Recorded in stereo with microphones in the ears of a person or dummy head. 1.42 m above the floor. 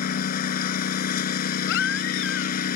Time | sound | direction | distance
0.0 | a lawn mower | 50° left (ahead or behind) | ?
1.7 | a baby crying | 70° left (ahead or behind) | ?